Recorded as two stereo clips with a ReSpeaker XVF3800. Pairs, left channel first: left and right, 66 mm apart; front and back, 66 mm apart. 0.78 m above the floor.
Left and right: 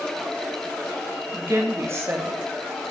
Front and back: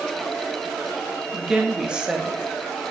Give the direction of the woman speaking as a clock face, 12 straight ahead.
4 o'clock.